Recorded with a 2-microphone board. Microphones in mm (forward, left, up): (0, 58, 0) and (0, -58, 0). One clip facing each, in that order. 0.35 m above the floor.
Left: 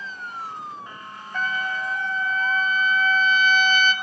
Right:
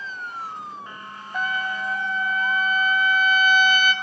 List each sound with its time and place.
1.3 s a trumpet: 15° right (ahead or behind), 0.8 m